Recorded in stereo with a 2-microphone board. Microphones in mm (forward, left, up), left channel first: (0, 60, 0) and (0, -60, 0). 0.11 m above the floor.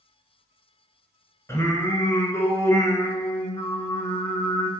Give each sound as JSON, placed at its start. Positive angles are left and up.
{"t": 1.5, "sound": "singing", "side_deg": 25, "distance_m": 1.1}